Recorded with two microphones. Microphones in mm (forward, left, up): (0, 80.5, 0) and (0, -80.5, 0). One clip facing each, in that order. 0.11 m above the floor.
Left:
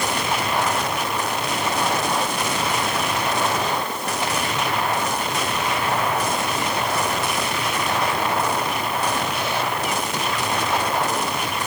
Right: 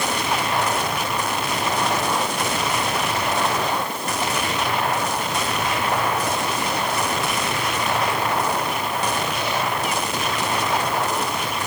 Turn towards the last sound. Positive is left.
No sound to turn to.